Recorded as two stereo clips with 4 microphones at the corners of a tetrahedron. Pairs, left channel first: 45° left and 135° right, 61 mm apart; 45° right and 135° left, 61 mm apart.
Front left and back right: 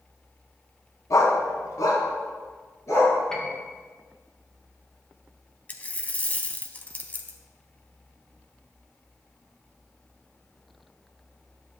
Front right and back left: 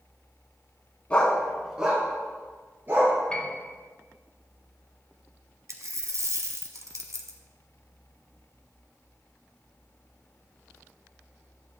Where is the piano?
15° right, 1.2 m.